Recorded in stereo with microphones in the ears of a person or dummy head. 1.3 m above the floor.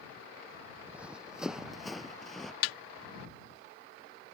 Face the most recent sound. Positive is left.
turn(degrees=80)